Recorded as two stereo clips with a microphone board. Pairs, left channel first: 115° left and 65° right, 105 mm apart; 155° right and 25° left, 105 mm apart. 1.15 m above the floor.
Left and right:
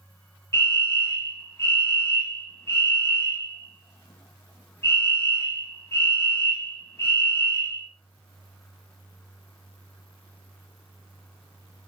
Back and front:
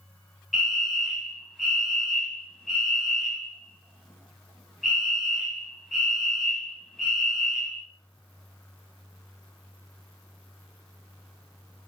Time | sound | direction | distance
0.5 | a fire alarm | 115° left | 1.1 m